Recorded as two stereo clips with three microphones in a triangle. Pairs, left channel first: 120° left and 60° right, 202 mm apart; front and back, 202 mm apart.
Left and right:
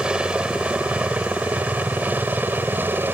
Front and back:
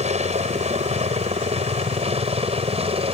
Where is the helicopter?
145° right; by 3.1 s 135° right.